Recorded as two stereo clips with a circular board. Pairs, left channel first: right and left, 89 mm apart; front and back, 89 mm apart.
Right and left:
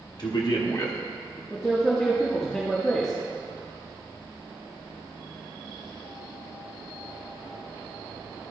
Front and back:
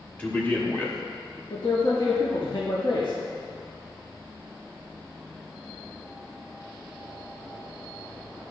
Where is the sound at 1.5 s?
10° right, 0.9 m.